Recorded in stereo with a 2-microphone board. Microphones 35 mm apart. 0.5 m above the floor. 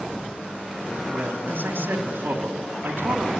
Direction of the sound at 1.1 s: 75° right (ahead or behind).